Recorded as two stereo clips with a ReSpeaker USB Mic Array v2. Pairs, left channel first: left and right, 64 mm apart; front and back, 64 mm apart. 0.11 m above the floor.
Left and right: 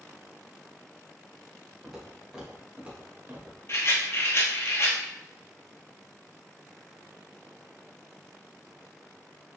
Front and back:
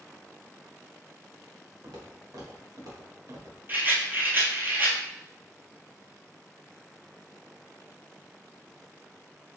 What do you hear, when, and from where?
1.8 s footsteps: 175° right, 2 m; by 3.6 s 150° right, 2 m
3.7 s a rattle: 130° left, 1.2 m